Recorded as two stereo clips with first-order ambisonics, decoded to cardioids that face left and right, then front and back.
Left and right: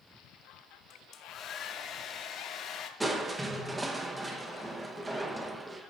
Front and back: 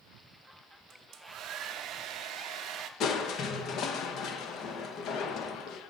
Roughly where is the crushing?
Ahead.